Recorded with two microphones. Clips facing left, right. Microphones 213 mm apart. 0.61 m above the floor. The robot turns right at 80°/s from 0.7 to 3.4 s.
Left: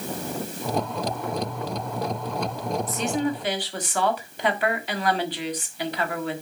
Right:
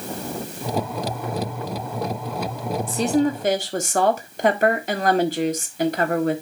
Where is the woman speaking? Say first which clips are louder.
Right 8 dB; 140° right, 1.4 m; by 6.4 s 95° right, 1.4 m.